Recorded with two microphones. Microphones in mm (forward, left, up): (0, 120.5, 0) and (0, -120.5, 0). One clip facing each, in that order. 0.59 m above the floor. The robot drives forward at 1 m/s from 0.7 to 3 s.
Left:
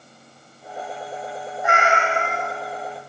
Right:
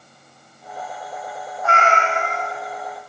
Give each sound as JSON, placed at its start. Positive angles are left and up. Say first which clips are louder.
{"t": 1.6, "sound": "a cat meowing", "louder": "right 1 dB", "side_deg": 15, "distance_m": 0.6}